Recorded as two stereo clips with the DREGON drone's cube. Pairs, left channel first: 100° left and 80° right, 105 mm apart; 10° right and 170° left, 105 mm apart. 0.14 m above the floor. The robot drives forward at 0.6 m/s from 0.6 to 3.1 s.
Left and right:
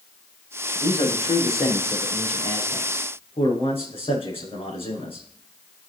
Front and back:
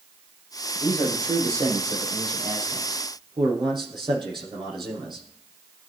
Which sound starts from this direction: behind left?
A man speaking, at 0.8 s.